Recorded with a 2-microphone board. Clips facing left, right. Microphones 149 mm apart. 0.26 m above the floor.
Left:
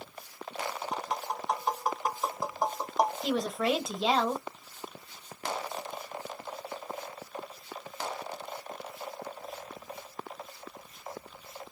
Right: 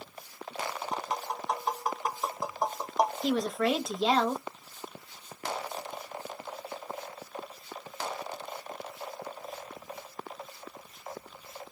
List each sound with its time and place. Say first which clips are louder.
0.9 s tapping: even; centre (ahead or behind), 1.0 m
3.2 s a woman speaking: right 1 dB; 5° left (ahead or behind), 1.1 m